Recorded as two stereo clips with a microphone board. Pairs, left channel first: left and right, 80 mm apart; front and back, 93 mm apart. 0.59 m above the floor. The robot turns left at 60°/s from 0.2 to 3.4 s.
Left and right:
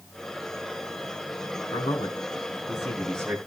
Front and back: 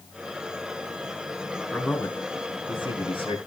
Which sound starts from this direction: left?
A man speaking, at 1.7 s.